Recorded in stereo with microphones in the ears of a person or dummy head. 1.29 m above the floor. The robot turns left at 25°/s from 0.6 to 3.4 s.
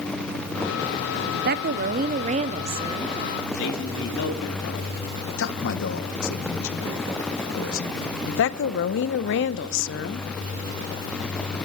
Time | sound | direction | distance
1.3 | a woman speaking | 110° right | 0.6 m
3.5 | a man speaking | 65° left (ahead or behind) | 2.5 m
5.4 | a man speaking | 65° left (ahead or behind) | 1.4 m
8.3 | a woman speaking | 65° left (ahead or behind) | 0.7 m